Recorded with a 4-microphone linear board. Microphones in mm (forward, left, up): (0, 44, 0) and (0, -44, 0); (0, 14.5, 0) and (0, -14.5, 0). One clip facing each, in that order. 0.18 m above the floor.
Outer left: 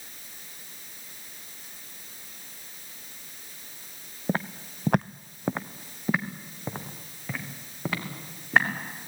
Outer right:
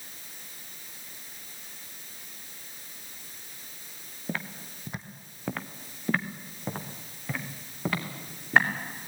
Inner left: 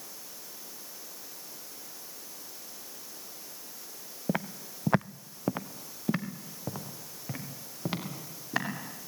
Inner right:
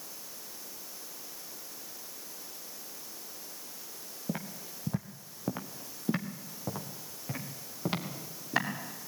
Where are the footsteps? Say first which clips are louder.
Outer left 6 dB, inner left 6 dB; 30° left (ahead or behind), 0.9 m; by 8.7 s centre (ahead or behind), 5 m.